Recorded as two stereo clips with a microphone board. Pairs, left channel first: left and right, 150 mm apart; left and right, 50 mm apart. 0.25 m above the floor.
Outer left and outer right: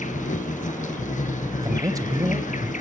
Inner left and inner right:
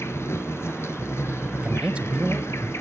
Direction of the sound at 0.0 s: 55° left (ahead or behind).